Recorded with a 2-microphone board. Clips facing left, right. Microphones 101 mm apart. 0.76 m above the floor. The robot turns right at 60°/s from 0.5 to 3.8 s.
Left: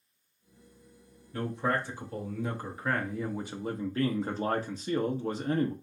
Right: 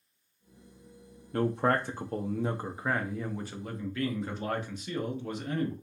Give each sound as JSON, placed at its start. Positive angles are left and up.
{"t": 1.3, "sound": "a man speaking", "azimuth_deg": -105, "distance_m": 0.7}